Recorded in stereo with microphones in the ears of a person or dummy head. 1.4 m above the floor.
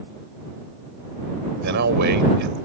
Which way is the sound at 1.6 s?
55° right (ahead or behind).